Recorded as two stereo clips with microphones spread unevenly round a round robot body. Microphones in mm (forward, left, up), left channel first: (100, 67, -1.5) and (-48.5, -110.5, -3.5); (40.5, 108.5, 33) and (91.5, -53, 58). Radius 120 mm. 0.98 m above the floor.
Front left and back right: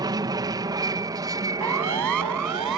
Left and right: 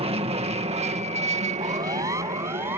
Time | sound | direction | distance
0.0 | an aircraft | 80° right | ?
1.6 | a siren | 145° right | ?